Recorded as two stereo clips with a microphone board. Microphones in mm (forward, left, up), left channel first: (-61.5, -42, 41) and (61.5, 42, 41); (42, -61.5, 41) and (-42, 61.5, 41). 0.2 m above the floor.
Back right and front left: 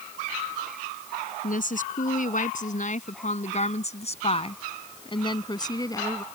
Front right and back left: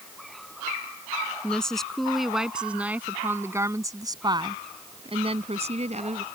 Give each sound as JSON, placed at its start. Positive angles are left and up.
{"t": 1.4, "sound": "a woman speaking", "azimuth_deg": -140}